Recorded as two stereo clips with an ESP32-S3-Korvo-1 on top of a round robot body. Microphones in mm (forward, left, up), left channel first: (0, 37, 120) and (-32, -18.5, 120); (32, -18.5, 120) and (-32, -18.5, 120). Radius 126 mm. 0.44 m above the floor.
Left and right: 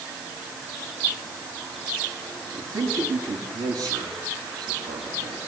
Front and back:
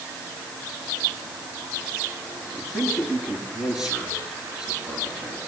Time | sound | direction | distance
2.5 | a man speaking | 105° right | 7.5 m